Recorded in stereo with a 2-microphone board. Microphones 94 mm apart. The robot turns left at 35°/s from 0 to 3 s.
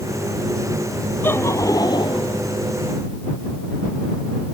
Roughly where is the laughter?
Behind.